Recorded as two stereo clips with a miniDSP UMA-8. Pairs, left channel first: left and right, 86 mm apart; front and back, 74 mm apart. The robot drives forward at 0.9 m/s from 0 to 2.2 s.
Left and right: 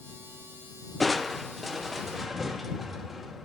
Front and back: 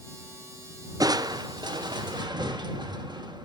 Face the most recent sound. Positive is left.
turn(degrees=180)